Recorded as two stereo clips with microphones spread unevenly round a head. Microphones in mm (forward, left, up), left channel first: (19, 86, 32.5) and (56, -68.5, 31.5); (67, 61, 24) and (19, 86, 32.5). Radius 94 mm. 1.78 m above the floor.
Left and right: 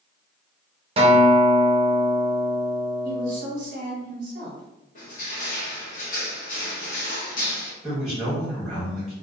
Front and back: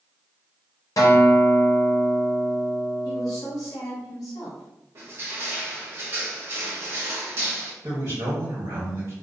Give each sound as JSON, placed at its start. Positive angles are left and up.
{"t": 1.0, "sound": "a guitar", "azimuth_deg": -25, "distance_m": 0.6}
{"t": 3.0, "sound": "a woman speaking", "azimuth_deg": -50, "distance_m": 0.9}
{"t": 5.0, "sound": "crushing", "azimuth_deg": 140, "distance_m": 0.7}
{"t": 7.8, "sound": "a man speaking", "azimuth_deg": -160, "distance_m": 1.1}